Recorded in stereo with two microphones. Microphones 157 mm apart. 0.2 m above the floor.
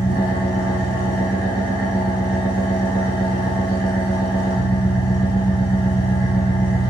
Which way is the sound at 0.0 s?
25° left (ahead or behind).